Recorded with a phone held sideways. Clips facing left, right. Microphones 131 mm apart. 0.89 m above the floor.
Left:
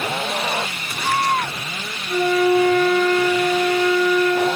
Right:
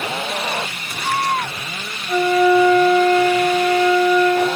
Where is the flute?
65° right (ahead or behind), 2.5 m.